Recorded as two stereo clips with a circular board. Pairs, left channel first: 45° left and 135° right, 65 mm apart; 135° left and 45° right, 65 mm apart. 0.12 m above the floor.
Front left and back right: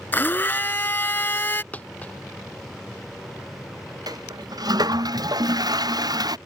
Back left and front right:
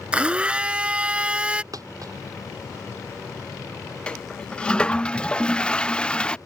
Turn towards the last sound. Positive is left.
turn(degrees=-150)